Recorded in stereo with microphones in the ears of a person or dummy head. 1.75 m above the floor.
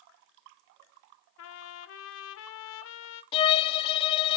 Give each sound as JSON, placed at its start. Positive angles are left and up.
{"t": 1.4, "sound": "a trumpet", "side_deg": 75, "distance_m": 0.6}
{"t": 3.3, "sound": "a violin", "side_deg": 30, "distance_m": 0.5}